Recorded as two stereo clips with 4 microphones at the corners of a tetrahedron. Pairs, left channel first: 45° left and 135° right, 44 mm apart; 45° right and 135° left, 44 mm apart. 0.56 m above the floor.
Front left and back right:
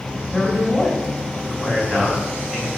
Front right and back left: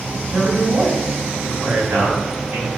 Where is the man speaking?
155° left, 3.5 m.